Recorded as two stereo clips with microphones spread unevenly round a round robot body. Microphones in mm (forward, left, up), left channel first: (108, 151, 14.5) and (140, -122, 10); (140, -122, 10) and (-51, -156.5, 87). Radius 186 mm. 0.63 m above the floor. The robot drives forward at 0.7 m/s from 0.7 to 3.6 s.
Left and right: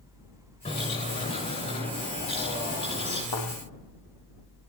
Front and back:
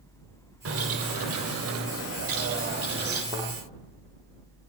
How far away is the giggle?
No giggle in this recording.